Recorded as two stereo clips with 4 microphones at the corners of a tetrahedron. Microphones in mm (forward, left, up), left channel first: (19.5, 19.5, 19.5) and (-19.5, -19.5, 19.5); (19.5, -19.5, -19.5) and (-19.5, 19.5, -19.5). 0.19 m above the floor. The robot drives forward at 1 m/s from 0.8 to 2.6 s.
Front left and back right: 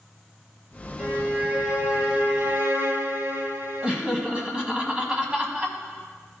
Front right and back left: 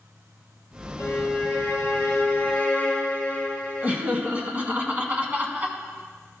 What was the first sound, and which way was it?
A violin, 60° right.